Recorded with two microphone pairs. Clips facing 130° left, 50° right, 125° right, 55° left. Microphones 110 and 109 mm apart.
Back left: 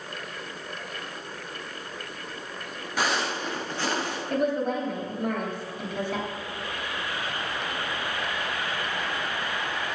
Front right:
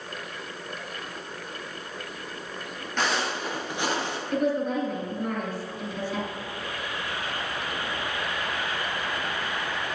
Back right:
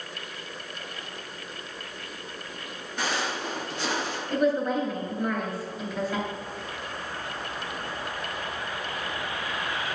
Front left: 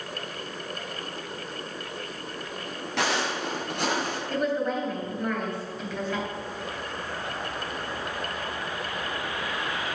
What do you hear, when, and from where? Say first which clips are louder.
3.0 s footsteps: even, front left 2 dB; 45° left, 2 m; by 4.2 s 15° left, 2.5 m
4.3 s a woman speaking: even, back right 3 dB; 150° left, 3.5 m